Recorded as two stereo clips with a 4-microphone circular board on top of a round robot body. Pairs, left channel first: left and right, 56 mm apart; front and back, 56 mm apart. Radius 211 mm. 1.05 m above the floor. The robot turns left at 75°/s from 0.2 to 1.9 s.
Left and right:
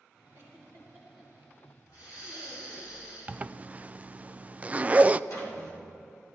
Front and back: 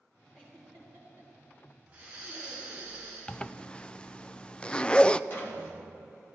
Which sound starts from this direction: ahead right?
A zipper, at 3.3 s.